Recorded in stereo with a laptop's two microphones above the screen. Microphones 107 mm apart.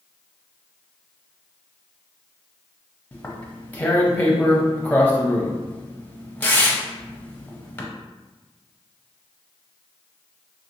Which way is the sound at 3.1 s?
15° left (ahead or behind).